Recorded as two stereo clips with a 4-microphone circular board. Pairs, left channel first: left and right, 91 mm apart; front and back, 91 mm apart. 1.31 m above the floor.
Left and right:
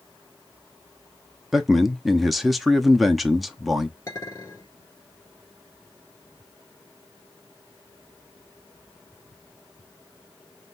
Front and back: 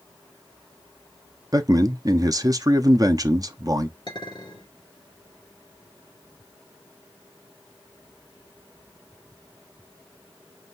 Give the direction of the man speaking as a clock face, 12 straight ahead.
6 o'clock.